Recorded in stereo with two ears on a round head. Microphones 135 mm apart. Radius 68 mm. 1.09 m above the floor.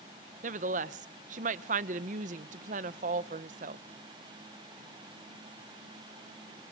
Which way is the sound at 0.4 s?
50° right (ahead or behind).